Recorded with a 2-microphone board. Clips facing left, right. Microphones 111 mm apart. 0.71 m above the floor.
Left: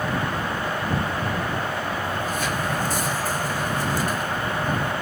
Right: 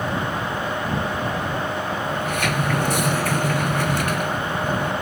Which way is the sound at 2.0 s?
70° right (ahead or behind).